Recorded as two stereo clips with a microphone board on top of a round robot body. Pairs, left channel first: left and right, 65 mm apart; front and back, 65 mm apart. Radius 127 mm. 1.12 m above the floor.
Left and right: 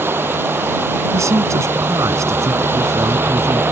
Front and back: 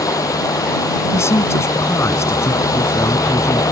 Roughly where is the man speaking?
Ahead right.